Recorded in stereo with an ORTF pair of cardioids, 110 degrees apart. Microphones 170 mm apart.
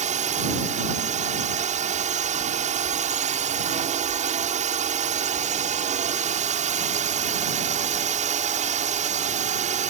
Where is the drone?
45° right.